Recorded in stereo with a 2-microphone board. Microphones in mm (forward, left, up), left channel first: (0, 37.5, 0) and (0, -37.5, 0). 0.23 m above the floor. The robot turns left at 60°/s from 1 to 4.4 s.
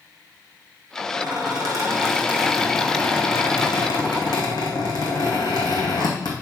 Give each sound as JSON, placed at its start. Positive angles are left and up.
{"t": 1.2, "sound": "a squeak", "azimuth_deg": -90, "distance_m": 3.0}